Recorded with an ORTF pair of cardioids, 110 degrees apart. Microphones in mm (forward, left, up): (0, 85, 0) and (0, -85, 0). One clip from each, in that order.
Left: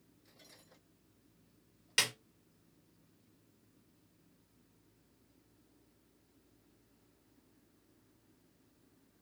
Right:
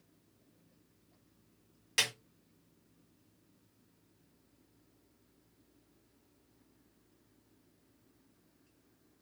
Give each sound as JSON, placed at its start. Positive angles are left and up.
{"t": 2.0, "sound": "a snare drum", "azimuth_deg": 5, "distance_m": 1.2}